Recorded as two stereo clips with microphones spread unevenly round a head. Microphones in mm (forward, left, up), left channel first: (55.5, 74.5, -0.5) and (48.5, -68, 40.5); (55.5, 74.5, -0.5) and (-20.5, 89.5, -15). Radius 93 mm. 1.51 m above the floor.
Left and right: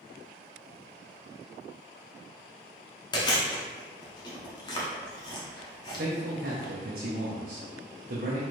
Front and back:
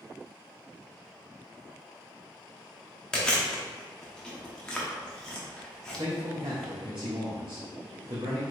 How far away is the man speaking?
About 0.7 m.